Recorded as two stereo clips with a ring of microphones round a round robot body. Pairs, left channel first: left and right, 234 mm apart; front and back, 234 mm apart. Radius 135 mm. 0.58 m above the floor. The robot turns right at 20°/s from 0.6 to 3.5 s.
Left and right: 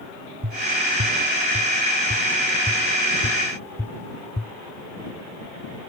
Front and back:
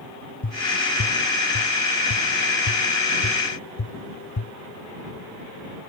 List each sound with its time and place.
0.4 s tapping: 45° right; by 4.5 s 10° left